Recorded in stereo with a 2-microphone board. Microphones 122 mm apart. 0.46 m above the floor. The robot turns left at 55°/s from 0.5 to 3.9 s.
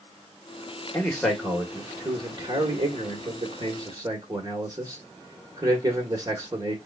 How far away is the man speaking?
About 1.7 m.